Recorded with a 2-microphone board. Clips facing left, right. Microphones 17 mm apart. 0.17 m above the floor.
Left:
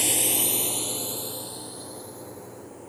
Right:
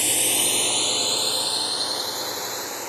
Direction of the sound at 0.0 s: 10° right (ahead or behind).